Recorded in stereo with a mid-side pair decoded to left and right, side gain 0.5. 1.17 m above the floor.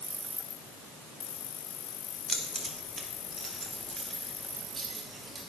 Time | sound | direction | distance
2.3 | keys jangling | 15° right | 2.5 m